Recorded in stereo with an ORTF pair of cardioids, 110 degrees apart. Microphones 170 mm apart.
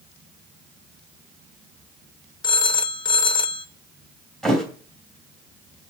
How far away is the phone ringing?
About 0.9 m.